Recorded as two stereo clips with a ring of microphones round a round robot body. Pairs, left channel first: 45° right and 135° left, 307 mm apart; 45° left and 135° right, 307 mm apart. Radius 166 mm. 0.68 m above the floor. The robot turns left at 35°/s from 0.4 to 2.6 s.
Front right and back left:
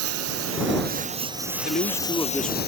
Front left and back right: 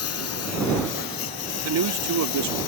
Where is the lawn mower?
90° left; by 2.7 s 15° left.